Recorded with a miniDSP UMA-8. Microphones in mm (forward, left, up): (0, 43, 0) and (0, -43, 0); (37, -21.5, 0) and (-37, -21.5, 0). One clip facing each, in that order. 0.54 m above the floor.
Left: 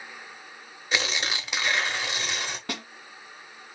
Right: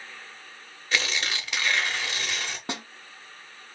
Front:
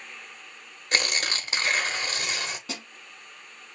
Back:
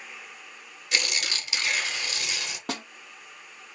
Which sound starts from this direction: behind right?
A snare drum, at 2.7 s.